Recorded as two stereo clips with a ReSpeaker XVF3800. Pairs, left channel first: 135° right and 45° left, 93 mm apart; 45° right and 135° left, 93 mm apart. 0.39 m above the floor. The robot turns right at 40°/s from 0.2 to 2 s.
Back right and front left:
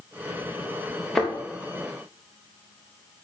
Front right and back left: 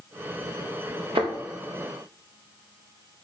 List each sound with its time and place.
1.1 s a thud: 140° left, 3.5 m; by 1.3 s 145° left, 3.5 m